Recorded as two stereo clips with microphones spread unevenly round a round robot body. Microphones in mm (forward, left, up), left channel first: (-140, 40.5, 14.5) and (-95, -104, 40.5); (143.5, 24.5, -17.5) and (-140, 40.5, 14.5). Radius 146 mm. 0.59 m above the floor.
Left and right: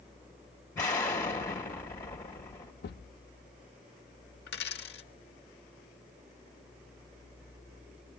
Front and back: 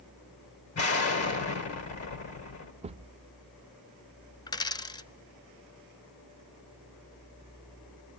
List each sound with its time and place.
0.8 s an explosion: 30° left, 1.9 m
2.8 s a thud: 105° left, 0.6 m
4.5 s a dropped coin: 75° left, 0.5 m